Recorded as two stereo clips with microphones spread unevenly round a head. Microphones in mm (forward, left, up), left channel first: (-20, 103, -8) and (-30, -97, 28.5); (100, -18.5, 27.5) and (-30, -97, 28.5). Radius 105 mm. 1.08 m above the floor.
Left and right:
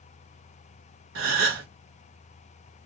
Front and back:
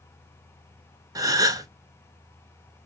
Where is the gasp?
85° right, 1.1 m.